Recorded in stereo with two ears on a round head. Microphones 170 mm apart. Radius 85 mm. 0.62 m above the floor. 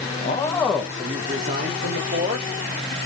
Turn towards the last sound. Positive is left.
turn(degrees=-60)  # may be behind; listen again after turning